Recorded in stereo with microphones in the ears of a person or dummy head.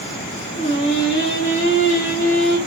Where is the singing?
45° right (ahead or behind), 1.9 m.